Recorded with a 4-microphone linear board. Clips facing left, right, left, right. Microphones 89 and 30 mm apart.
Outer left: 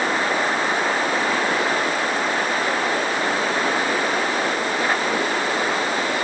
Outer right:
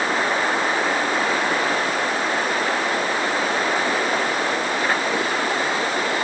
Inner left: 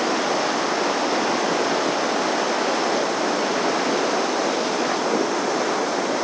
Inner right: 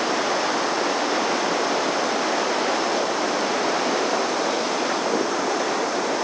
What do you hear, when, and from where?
Only background noise.